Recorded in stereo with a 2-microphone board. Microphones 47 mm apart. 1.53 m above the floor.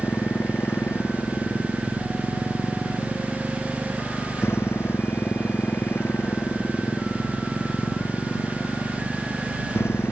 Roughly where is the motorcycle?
Left.